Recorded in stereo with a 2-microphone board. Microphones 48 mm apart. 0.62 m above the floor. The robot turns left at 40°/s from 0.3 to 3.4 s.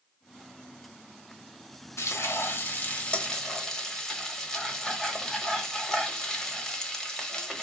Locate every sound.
2.0 s frying: 65° left, 1.0 m; by 7.7 s 10° left, 1.0 m